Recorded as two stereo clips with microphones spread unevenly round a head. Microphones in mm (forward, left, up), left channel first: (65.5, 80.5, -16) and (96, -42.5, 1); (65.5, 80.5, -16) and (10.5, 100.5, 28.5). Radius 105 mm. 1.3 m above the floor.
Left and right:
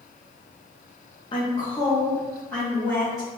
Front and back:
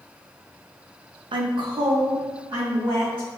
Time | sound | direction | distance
1.3 | a woman speaking | 145° left | 0.6 m